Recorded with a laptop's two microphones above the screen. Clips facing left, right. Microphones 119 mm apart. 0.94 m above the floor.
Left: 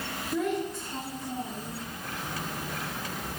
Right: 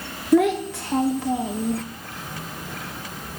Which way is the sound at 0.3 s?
80° right.